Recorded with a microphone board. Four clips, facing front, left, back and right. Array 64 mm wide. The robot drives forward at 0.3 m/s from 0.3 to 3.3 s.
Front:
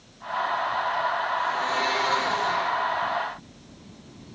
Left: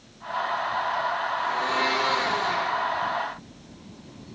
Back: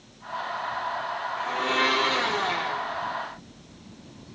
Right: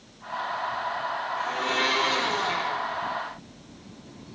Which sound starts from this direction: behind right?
A blender, at 1.4 s.